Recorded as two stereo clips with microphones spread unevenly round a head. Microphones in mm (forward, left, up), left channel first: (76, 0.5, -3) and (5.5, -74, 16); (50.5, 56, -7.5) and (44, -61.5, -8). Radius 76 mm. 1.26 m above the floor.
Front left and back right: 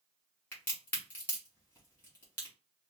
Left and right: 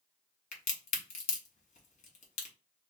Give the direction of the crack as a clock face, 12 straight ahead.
8 o'clock.